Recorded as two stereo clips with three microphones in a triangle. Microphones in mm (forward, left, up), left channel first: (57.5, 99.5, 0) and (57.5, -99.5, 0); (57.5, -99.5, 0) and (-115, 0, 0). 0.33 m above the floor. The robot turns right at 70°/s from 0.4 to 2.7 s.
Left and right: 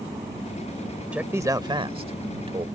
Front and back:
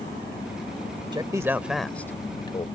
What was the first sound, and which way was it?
A man speaking, 170° right.